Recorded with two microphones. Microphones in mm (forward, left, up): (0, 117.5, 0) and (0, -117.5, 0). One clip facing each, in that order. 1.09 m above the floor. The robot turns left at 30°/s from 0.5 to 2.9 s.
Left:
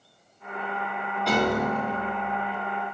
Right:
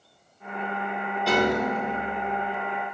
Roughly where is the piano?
Centre.